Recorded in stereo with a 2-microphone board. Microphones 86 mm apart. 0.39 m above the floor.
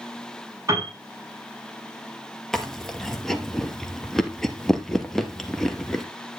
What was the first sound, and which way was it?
A piano, 40° right (ahead or behind).